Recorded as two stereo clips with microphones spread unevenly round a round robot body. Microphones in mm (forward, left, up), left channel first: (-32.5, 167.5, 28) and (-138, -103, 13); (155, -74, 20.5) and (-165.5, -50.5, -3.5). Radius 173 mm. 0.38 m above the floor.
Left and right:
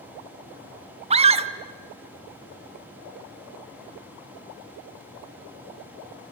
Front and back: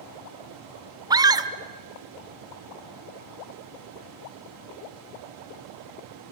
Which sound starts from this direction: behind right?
A scream, at 1.1 s.